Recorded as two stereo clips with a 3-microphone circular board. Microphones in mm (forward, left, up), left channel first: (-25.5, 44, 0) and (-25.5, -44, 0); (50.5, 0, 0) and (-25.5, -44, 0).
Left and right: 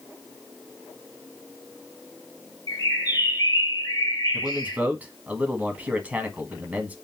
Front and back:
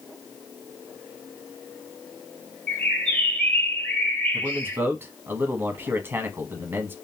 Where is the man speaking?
140° right, 1.1 m.